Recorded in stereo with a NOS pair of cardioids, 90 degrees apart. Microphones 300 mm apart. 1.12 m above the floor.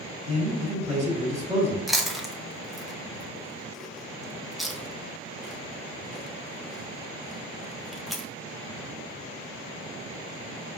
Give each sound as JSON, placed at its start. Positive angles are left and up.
{"t": 0.3, "sound": "a man speaking", "azimuth_deg": -20, "distance_m": 1.6}
{"t": 1.9, "sound": "chewing", "azimuth_deg": 0, "distance_m": 0.6}